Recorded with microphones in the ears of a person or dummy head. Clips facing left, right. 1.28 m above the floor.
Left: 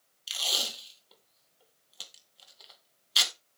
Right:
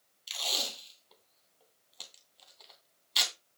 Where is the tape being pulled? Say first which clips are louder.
Left 1 dB; 5° left (ahead or behind), 2 m.